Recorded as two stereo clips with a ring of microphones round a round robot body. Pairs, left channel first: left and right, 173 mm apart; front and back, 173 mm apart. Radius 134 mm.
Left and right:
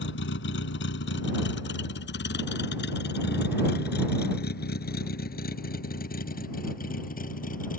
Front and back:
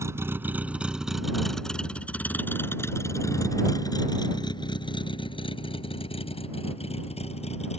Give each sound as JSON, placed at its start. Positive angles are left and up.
{"t": 0.0, "sound": "a vehicle", "azimuth_deg": 105}